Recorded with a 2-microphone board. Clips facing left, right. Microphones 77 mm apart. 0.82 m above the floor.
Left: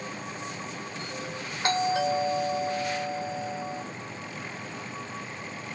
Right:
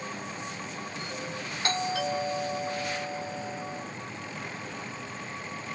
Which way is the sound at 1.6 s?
25° left (ahead or behind).